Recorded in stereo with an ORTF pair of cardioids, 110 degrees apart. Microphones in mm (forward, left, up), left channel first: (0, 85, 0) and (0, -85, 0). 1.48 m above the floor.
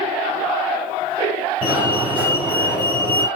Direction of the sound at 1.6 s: 10° right.